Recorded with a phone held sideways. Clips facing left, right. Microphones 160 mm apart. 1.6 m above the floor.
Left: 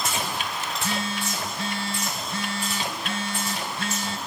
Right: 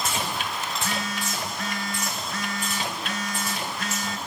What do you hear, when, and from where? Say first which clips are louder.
0.7 s a phone buzzing: left 1 dB; 30° left (ahead or behind), 0.9 m